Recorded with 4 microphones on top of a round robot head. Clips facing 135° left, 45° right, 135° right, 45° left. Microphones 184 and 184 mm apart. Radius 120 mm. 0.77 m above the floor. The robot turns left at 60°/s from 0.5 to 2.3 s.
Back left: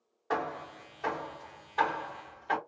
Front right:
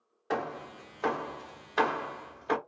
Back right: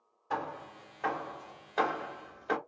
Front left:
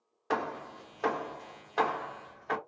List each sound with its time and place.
0.3 s hammering: 25° left, 0.8 m; by 2.6 s 85° right, 0.8 m